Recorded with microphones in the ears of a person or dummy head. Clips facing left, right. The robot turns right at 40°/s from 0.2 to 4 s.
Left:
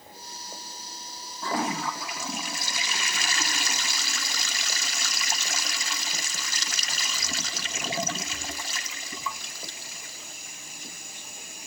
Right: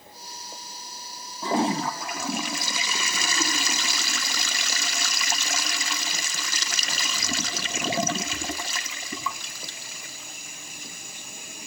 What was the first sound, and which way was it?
A toilet flushing, 165° right.